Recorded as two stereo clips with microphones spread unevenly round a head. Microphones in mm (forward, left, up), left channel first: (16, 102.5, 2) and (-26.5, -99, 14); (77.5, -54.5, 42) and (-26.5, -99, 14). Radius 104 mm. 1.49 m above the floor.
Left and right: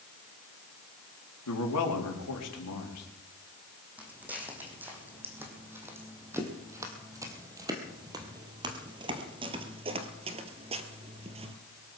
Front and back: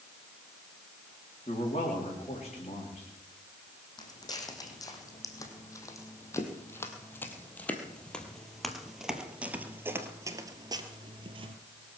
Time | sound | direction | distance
1.5 | a man speaking | 80° left | 4 m
4.0 | footsteps | 20° right | 4 m